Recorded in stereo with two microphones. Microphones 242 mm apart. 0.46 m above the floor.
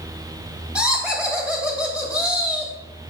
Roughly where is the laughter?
Centre.